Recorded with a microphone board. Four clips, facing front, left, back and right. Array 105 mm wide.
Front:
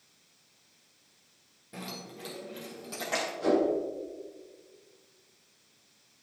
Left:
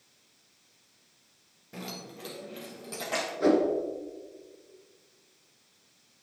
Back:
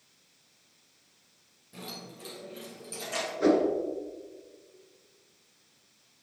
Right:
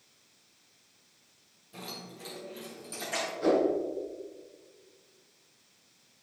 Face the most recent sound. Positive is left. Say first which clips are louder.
# left 2 dB, back 3 dB
turn(degrees=150)